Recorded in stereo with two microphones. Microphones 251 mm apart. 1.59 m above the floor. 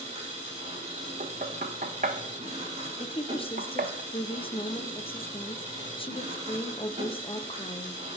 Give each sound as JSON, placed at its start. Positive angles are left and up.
{"t": 0.0, "sound": "an engine running", "side_deg": -30, "distance_m": 4.5}
{"t": 1.2, "sound": "knocking", "side_deg": -35, "distance_m": 0.8}
{"t": 3.0, "sound": "a woman speaking", "side_deg": 20, "distance_m": 0.9}